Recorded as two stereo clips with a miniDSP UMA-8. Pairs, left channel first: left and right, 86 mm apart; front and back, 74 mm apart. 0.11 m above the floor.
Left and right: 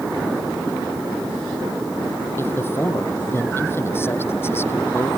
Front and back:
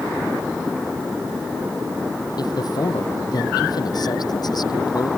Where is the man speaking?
25° left.